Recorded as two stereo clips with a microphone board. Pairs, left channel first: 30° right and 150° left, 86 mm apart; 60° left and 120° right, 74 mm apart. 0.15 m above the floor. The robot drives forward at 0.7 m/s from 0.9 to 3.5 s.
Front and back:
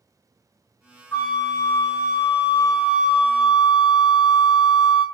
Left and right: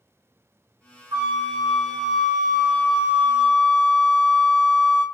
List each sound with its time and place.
1.1 s a flute: 90° right, 2.5 m; by 5.0 s 125° right, 3 m